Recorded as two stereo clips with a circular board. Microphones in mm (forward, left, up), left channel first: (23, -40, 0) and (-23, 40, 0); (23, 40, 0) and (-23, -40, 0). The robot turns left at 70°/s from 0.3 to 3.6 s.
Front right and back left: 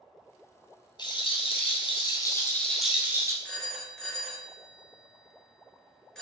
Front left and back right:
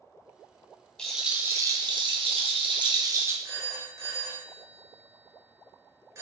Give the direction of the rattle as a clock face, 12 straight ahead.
1 o'clock.